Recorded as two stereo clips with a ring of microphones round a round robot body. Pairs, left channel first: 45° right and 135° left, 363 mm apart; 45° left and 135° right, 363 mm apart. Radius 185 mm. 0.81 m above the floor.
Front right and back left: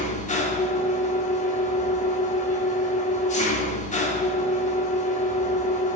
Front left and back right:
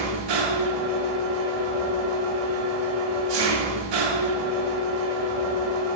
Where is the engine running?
115° right, 1.3 m.